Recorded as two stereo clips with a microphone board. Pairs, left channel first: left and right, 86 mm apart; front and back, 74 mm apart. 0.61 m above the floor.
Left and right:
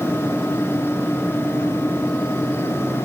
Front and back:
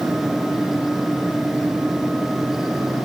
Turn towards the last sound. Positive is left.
No sound to turn to.